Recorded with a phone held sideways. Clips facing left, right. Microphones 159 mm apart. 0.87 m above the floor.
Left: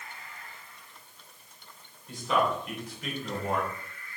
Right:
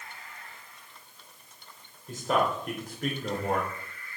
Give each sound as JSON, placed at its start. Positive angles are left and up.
{"t": 2.1, "sound": "a man speaking", "side_deg": -45, "distance_m": 4.0}